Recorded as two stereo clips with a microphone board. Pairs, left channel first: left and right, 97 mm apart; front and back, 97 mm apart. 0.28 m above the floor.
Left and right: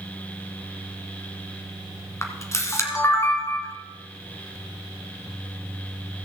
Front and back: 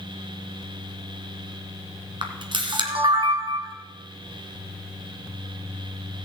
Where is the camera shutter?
150° left, 1.5 m.